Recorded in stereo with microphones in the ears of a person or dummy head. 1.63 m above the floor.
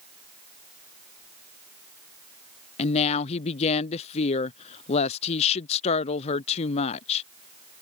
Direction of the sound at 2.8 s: 35° left (ahead or behind).